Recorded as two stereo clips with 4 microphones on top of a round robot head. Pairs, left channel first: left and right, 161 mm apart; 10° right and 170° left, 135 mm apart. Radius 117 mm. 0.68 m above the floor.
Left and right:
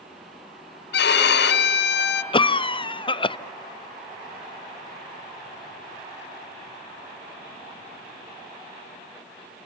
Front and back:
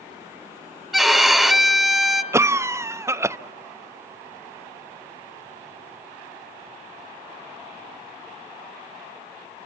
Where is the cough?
115° left, 0.8 m.